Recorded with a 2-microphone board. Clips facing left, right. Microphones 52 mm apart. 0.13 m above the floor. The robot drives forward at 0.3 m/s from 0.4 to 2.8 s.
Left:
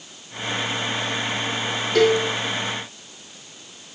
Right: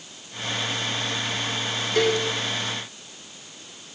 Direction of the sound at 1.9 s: 75° left (ahead or behind).